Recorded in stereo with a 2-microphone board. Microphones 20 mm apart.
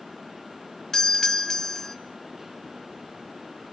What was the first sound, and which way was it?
A doorbell, 20° left (ahead or behind).